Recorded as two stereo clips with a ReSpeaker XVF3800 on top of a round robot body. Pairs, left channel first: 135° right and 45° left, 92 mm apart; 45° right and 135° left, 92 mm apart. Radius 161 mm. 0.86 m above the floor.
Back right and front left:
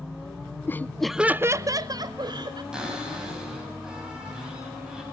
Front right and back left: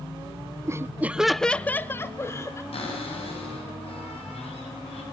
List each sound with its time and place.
0.7 s laughter: 175° left, 0.5 m; by 2.6 s 10° left, 0.9 m
2.7 s a cupboard door: 40° right, 6 m